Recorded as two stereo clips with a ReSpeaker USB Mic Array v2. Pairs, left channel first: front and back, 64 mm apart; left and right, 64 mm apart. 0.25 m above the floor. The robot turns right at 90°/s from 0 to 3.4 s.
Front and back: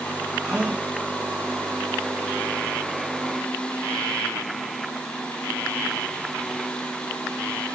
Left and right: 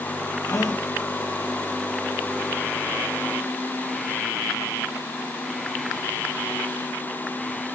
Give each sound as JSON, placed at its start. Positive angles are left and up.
{"t": 0.4, "sound": "a gasp", "azimuth_deg": 95, "distance_m": 3.0}